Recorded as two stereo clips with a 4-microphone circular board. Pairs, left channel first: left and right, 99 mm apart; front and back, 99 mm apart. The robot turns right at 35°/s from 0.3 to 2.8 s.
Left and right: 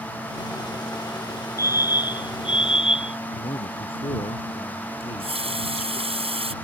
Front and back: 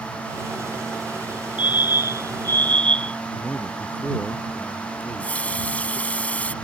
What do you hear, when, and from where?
1.6 s a fire alarm: 35° left; by 3.2 s 75° left
3.4 s a man speaking: 75° left
5.0 s a running tap: 75° right